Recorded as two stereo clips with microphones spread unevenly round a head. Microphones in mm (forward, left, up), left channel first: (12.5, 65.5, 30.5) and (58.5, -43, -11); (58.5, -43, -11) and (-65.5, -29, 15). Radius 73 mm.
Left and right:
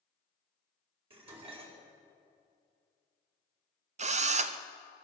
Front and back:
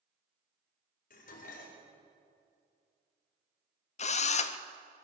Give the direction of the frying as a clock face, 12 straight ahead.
I don't hear frying.